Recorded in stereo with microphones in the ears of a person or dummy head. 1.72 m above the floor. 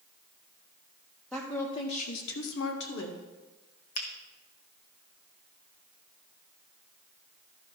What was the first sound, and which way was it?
A woman speaking, 5° left (ahead or behind).